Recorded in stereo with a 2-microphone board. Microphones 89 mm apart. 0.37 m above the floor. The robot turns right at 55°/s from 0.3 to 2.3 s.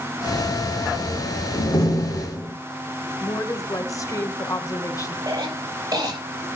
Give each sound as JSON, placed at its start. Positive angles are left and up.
{"t": 1.5, "sound": "a door slam", "azimuth_deg": 120, "distance_m": 7.0}
{"t": 3.2, "sound": "a woman speaking", "side_deg": 40, "distance_m": 1.9}
{"t": 5.3, "sound": "a cough", "side_deg": -45, "distance_m": 8.5}